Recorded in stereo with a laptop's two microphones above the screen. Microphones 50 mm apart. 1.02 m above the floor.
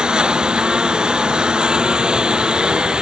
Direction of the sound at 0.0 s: 15° right (ahead or behind).